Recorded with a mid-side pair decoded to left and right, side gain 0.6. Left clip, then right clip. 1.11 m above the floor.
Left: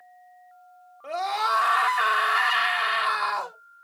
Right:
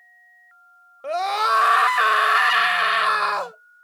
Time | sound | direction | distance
1.0 | a scream | 40° right | 1.0 m